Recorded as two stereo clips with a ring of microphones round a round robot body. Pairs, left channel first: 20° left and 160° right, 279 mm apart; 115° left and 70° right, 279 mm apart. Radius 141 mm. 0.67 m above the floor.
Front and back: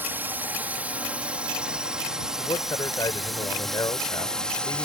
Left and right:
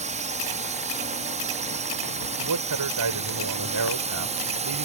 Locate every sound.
0.0 s a drone: 85° right; by 4.9 s 60° right
2.4 s a man speaking: 55° right